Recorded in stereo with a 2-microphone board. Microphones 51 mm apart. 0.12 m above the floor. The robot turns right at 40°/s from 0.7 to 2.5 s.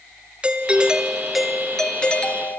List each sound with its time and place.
0.4 s a doorbell: 30° right, 2 m; by 2.6 s 45° left, 2 m